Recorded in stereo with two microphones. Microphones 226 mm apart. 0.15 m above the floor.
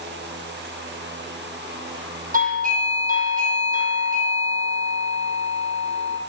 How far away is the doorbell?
About 7 m.